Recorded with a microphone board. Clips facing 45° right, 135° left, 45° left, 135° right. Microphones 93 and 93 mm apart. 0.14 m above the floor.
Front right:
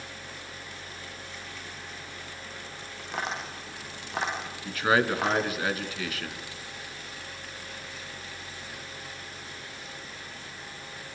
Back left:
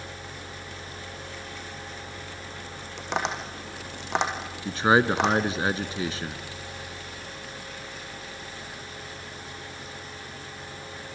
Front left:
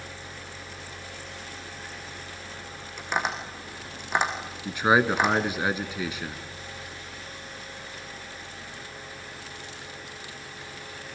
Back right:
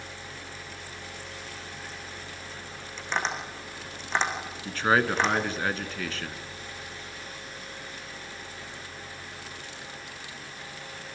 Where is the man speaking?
105° left, 1.3 m.